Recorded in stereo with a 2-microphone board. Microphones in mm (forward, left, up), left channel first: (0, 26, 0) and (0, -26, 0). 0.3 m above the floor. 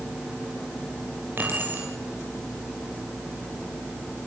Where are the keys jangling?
50° right (ahead or behind), 4.5 m.